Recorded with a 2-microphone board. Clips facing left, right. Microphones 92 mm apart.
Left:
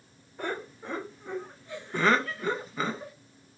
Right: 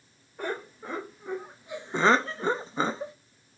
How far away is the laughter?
About 1.3 m.